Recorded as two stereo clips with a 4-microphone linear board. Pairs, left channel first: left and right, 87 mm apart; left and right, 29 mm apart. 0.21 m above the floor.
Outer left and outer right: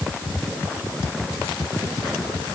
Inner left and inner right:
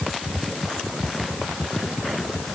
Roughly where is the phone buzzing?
I don't hear a phone buzzing.